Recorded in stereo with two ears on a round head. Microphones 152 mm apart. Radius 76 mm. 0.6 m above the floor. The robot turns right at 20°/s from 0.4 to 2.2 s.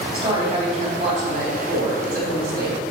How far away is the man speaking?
About 3.5 m.